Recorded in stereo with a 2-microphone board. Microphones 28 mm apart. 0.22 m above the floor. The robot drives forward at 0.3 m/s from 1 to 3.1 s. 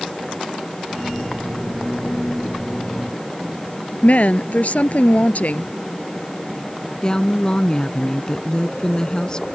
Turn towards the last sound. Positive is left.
turn(degrees=30)  # may be behind; listen again after turning